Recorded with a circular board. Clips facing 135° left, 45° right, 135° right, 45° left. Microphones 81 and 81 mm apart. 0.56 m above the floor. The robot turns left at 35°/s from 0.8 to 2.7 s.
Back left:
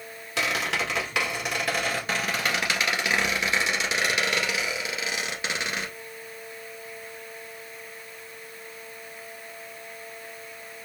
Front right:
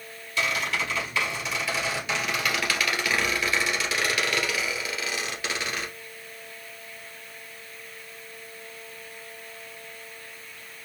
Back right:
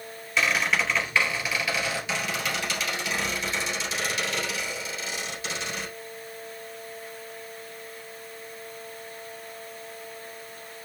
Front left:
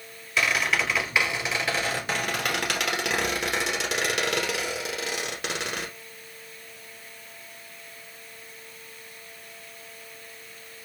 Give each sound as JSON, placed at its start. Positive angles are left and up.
{"t": 0.4, "sound": "a squeak", "azimuth_deg": 135, "distance_m": 1.8}